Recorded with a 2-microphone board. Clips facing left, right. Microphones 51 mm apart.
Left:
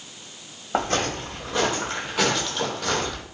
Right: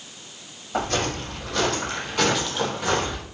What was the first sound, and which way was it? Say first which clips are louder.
Footsteps: left 1 dB; 45° left (ahead or behind).